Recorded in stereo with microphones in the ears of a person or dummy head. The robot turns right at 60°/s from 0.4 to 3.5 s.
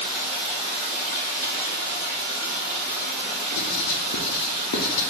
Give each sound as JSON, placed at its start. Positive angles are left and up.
{"t": 0.0, "sound": "running water", "azimuth_deg": 20, "distance_m": 1.8}
{"t": 3.5, "sound": "writing", "side_deg": 75, "distance_m": 0.6}